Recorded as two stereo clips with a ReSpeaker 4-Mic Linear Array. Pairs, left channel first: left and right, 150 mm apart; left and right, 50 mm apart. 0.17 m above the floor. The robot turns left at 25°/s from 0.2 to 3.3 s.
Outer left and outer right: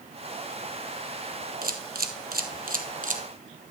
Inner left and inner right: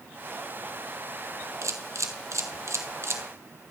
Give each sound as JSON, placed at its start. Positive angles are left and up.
{"t": 1.6, "sound": "a camera shutter", "side_deg": -80, "distance_m": 1.1}